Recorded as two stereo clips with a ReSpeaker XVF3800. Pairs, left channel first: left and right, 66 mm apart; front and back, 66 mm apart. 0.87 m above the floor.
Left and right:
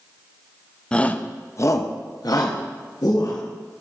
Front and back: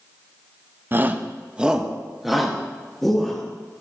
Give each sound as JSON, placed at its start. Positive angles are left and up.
{"t": 0.9, "sound": "a shout", "azimuth_deg": 155, "distance_m": 0.5}